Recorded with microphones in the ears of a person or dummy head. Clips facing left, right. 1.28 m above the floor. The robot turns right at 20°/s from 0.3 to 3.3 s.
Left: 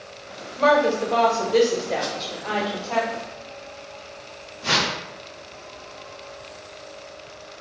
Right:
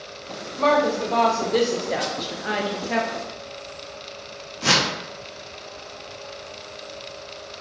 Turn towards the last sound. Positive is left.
turn(degrees=-80)